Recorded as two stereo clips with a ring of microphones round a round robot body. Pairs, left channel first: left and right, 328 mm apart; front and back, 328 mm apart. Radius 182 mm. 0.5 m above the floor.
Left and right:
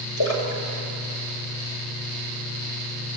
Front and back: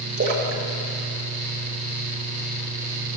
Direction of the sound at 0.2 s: 120° left.